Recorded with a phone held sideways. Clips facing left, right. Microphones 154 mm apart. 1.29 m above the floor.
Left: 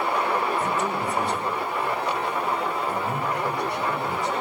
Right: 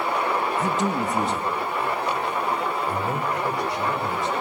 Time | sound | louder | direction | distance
0.6 | a man speaking | right 2 dB | 75° right (ahead or behind) | 1.7 m